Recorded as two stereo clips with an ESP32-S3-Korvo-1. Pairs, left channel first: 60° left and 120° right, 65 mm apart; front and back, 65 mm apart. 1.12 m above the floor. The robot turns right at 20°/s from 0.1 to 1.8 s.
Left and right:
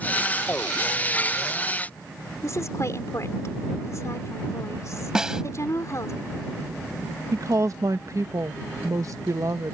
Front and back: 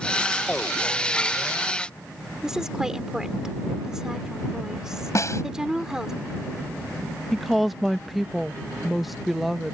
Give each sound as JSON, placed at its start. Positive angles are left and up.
{"t": 2.4, "sound": "a woman speaking", "azimuth_deg": 100}
{"t": 5.2, "sound": "a snare drum", "azimuth_deg": -40}
{"t": 7.3, "sound": "a woman speaking", "azimuth_deg": -90}